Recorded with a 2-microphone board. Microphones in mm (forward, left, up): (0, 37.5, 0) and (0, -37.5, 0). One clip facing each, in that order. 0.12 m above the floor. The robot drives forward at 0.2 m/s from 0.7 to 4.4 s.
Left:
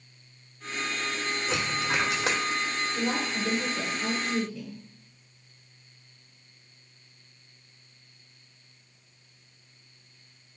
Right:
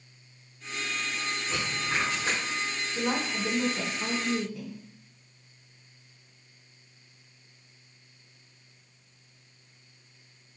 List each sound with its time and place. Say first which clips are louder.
1.5 s a dropped coin: left 3 dB; 70° left (ahead or behind), 1.1 m; by 2.4 s 80° left, 1.0 m
3.0 s a woman speaking: right 2 dB; 20° right (ahead or behind), 1.1 m